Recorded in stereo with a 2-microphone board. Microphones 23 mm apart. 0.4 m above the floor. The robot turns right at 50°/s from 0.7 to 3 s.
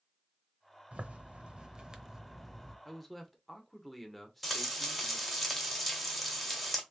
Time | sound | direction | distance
0.9 | a zipper | 85° right | 0.6 m
2.9 | a man speaking | 5° left (ahead or behind) | 0.9 m
4.4 | frying | centre (ahead or behind) | 1.8 m